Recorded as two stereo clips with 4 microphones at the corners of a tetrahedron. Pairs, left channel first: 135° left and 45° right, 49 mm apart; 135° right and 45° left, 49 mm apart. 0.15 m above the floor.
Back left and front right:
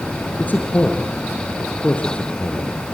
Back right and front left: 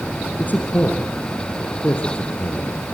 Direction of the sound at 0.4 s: Straight behind.